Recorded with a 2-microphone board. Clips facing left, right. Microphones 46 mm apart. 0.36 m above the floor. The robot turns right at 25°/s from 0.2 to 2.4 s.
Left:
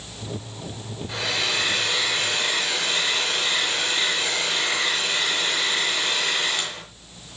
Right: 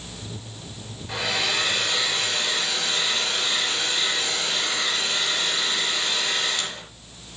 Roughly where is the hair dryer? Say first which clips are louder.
Right 1 dB; ahead.